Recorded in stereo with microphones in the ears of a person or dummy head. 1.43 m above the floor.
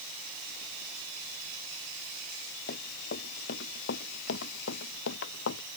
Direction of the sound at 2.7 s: 55° left (ahead or behind).